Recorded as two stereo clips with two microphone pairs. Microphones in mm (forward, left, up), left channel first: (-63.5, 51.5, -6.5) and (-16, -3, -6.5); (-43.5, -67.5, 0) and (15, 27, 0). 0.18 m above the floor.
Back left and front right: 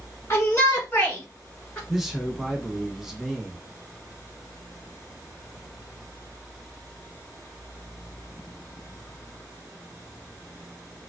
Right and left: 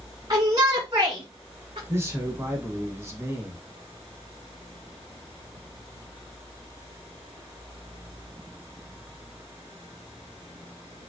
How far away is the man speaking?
About 1.0 m.